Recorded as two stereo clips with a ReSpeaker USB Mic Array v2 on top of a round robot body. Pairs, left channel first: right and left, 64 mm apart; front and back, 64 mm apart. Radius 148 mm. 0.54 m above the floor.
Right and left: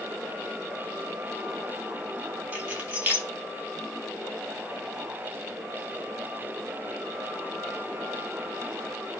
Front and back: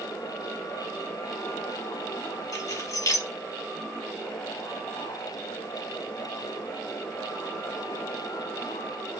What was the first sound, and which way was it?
Keys jangling, 20° left.